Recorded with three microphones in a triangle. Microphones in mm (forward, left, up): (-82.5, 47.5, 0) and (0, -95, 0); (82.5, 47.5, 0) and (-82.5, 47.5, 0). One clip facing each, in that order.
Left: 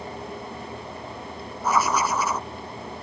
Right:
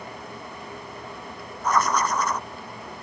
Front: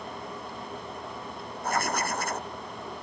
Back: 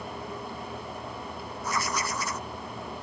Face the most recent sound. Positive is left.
turn(degrees=35)